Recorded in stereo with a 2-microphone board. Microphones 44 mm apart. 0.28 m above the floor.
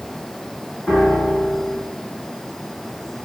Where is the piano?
30° left (ahead or behind), 2 m.